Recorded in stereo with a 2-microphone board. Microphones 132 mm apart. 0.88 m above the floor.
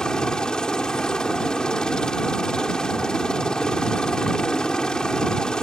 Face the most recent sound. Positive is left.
turn(degrees=5)  # may be behind; listen again after turning